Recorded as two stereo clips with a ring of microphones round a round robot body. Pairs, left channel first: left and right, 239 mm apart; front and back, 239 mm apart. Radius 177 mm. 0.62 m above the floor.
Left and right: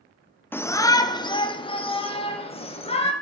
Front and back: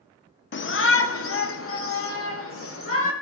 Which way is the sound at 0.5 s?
10° left.